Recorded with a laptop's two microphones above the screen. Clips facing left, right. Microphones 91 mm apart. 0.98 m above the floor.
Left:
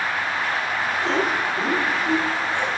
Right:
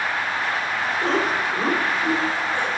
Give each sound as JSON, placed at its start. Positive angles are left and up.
{"t": 1.0, "sound": "laughter", "side_deg": -55, "distance_m": 2.5}